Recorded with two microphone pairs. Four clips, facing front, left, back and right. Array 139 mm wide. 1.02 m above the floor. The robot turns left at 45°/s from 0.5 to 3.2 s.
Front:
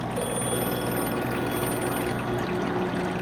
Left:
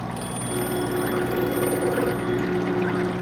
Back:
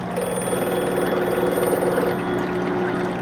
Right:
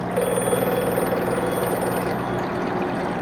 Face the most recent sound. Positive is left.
turn(degrees=125)